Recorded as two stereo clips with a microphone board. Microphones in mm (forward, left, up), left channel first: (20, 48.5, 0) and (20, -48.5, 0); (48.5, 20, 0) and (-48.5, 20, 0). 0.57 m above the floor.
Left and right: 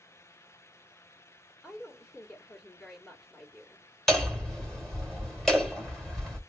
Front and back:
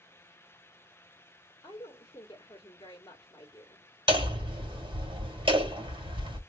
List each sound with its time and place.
1.6 s a woman speaking: 20° left, 1.2 m
4.1 s hammering: 175° left, 1.9 m